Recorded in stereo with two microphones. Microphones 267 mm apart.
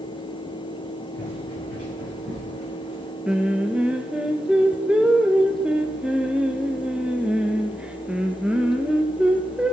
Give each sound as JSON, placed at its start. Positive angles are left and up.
{"t": 1.1, "sound": "running footsteps", "side_deg": -40, "distance_m": 10.0}
{"t": 3.2, "sound": "singing", "side_deg": -5, "distance_m": 1.3}